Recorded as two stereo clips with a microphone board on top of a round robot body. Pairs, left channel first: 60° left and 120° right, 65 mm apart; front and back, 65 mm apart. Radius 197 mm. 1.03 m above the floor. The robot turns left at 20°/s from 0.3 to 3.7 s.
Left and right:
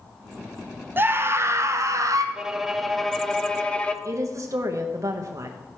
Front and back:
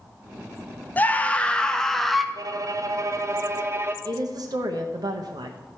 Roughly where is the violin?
Behind.